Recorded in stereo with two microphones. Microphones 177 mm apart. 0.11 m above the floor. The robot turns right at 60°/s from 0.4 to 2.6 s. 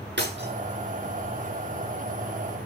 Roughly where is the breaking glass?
Right.